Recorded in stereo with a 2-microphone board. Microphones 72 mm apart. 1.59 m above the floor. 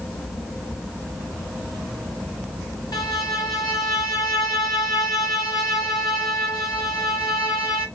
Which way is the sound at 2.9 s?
75° left (ahead or behind).